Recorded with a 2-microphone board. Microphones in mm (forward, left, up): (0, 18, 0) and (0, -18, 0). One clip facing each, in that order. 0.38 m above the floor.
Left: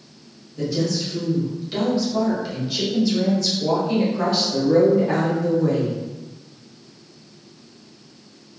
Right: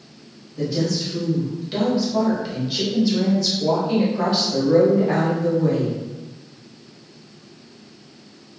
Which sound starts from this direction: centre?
A woman speaking, at 0.6 s.